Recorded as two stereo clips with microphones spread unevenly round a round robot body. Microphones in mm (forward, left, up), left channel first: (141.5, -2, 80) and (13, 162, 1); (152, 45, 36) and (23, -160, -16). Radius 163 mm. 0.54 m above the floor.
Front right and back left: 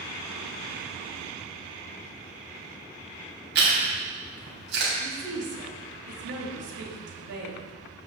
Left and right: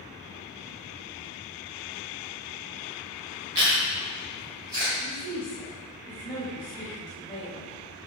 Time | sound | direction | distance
3.5 | chewing | 165° left | 3 m
5.0 | a woman speaking | 135° left | 2.5 m